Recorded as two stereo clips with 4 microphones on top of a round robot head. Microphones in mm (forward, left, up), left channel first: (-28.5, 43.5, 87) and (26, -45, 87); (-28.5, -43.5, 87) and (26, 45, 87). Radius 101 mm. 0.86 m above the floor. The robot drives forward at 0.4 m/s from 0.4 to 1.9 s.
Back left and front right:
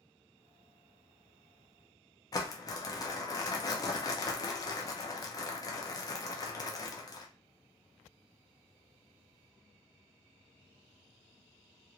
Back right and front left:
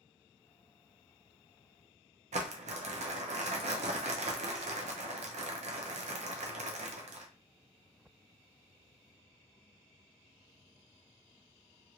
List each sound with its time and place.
2.3 s crumpling: 65° left, 0.5 m